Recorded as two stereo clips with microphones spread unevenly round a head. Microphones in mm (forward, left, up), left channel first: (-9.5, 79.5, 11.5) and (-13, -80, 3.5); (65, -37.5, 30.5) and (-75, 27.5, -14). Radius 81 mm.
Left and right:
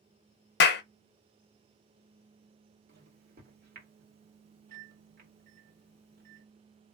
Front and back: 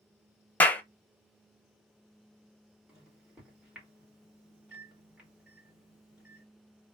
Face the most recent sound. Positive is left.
turn(degrees=-120)